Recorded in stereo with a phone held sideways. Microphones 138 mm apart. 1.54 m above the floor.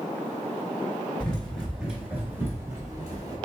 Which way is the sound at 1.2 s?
5° left (ahead or behind).